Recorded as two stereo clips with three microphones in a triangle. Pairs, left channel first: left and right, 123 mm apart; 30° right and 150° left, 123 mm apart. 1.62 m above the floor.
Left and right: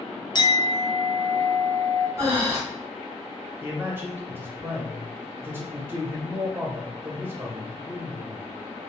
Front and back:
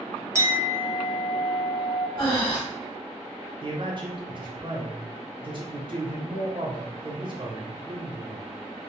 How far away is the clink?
About 0.6 m.